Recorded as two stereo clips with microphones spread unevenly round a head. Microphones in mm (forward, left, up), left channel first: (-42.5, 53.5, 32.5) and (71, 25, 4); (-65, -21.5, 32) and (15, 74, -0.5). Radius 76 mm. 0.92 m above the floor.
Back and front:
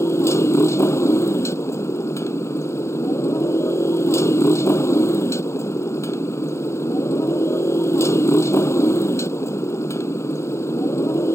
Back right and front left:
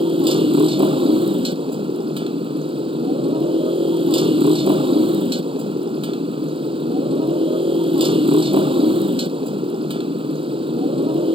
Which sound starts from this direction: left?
A motorcycle, at 0.0 s.